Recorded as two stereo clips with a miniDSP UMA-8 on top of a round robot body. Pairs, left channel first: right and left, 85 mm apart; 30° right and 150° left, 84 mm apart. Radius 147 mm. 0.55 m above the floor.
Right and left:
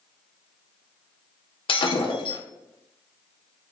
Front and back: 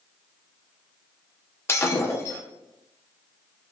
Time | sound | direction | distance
1.7 | breaking glass | 90° right | 0.9 m